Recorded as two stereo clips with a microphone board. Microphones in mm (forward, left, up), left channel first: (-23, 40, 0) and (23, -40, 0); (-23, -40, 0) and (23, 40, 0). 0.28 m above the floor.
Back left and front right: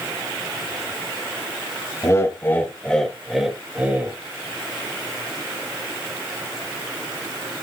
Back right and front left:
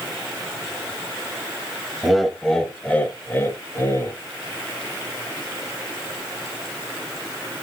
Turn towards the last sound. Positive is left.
turn(degrees=-115)